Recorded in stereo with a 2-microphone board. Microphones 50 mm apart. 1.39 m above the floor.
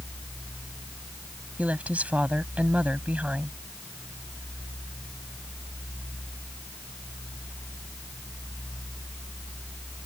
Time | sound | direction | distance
1.6 | a woman speaking | 25° right (ahead or behind) | ?